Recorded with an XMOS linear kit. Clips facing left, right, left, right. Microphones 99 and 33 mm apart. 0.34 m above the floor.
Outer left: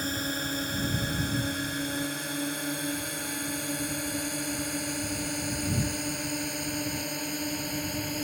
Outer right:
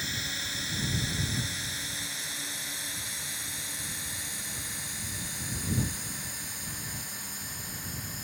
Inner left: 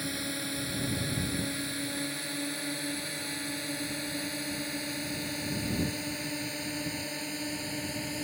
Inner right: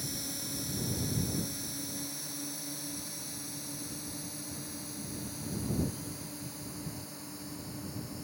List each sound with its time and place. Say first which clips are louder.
0.0 s a drone: outer left 7 dB, inner left 6 dB; 45° left (ahead or behind); by 8.2 s 65° left (ahead or behind)